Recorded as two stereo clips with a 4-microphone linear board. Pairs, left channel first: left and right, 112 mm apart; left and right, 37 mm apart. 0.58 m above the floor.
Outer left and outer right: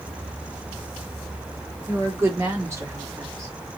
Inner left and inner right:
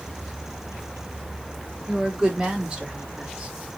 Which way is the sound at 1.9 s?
20° right (ahead or behind).